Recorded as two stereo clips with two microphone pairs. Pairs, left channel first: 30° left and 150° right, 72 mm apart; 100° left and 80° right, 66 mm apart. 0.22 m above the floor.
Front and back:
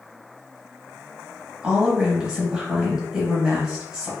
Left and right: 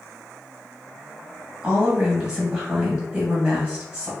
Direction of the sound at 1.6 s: 110° right.